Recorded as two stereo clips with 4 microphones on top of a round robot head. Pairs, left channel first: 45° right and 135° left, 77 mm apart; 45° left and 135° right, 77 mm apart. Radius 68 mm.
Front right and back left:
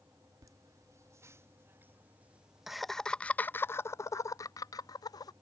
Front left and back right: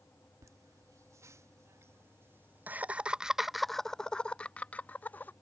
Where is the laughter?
Straight behind; by 5.3 s 20° right.